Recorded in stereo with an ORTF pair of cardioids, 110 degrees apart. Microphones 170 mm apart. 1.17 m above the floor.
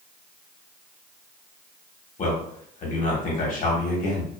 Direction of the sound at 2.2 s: 50° left.